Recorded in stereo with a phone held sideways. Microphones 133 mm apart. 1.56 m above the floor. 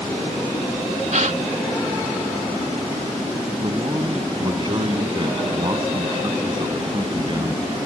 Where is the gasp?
65° right (ahead or behind).